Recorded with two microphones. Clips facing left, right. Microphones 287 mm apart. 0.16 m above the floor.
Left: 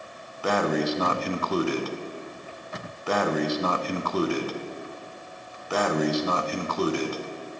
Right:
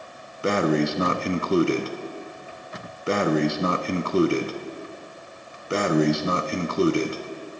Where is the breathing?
25° right (ahead or behind), 0.6 m.